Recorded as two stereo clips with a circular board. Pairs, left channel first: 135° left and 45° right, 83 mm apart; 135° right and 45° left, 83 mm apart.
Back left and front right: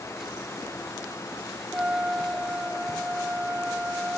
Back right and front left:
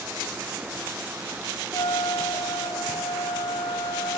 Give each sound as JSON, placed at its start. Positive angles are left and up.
{"t": 1.7, "sound": "a trumpet", "azimuth_deg": -120}